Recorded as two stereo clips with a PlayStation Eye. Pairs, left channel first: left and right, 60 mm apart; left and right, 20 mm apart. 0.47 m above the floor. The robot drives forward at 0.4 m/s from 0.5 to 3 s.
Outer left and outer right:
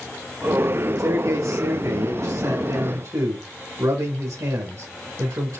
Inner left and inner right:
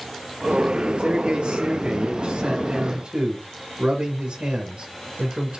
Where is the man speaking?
75° right (ahead or behind), 4 m; by 5.6 s 65° right (ahead or behind), 4 m.